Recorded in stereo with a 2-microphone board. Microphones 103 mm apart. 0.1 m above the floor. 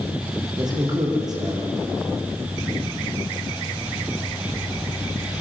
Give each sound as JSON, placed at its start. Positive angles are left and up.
{"t": 0.6, "sound": "a man speaking", "side_deg": -40, "distance_m": 7.5}